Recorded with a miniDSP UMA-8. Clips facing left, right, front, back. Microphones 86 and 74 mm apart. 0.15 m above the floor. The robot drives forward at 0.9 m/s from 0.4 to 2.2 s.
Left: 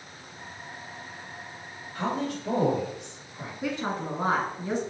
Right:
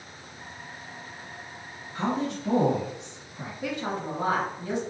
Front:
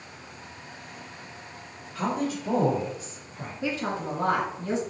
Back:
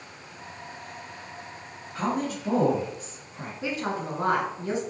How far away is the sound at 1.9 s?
About 1.8 m.